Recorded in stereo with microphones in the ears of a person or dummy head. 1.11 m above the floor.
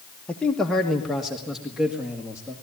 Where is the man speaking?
10° left (ahead or behind), 1.2 m; by 2.5 s 5° right (ahead or behind), 2.5 m.